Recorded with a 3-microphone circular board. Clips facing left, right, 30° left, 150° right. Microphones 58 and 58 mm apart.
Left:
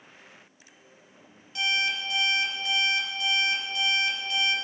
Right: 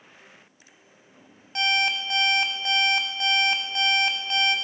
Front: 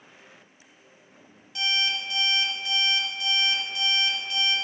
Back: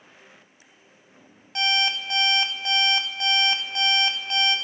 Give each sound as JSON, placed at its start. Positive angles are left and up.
{"t": 1.6, "sound": "an alarm clock", "azimuth_deg": -120, "distance_m": 1.3}